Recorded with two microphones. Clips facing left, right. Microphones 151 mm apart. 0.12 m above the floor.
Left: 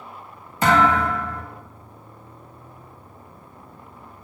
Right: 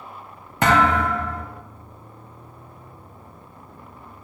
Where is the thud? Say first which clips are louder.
Even; 65° right (ahead or behind), 2.5 m.